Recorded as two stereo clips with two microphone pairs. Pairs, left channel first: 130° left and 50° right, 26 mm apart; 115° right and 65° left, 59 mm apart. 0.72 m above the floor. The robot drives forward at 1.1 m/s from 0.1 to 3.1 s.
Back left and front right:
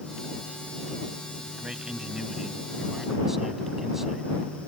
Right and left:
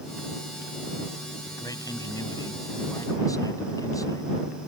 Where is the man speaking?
115° right; by 4.3 s 125° right.